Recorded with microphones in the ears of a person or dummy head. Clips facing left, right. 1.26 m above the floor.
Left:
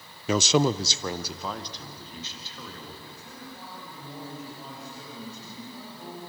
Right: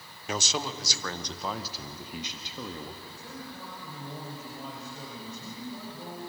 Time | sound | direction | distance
0.3 | a man speaking | 75° left (ahead or behind) | 0.6 m
3.0 | a man speaking | 85° right | 7 m